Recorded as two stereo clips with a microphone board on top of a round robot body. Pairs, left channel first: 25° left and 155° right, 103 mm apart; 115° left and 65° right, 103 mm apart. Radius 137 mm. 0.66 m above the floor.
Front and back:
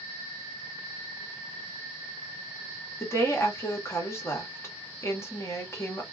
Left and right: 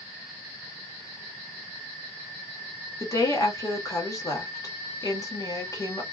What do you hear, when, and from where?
3.0 s a woman speaking: 75° left, 1.3 m